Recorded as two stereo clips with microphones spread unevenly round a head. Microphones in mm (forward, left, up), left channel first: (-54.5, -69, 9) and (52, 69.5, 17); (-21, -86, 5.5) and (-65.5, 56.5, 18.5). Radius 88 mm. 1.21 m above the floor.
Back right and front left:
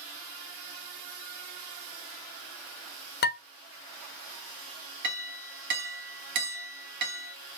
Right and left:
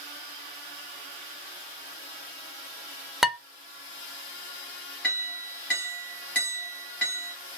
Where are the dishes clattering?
165° right, 1.0 m.